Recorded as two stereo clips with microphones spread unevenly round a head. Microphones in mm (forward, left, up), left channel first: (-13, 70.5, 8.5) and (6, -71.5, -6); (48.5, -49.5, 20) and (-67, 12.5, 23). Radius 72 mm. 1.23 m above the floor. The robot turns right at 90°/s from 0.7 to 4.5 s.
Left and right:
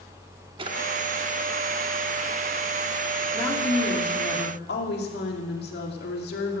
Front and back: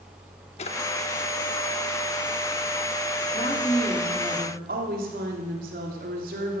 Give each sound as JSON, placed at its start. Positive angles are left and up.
{"t": 0.6, "sound": "a drawer", "azimuth_deg": -35, "distance_m": 0.9}
{"t": 3.3, "sound": "a woman speaking", "azimuth_deg": 15, "distance_m": 2.5}